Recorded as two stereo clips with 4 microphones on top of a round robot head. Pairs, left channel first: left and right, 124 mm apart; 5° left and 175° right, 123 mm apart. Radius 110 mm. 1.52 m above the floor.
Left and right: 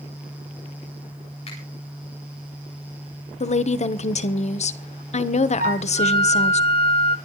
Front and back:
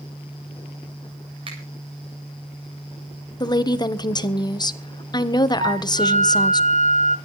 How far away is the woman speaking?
About 1.4 m.